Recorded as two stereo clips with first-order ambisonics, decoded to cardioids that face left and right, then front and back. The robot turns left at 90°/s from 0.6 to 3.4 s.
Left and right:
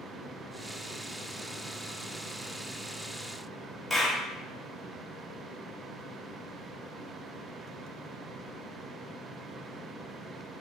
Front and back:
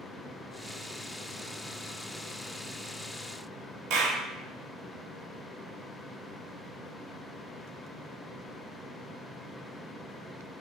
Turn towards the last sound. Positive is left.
turn(degrees=175)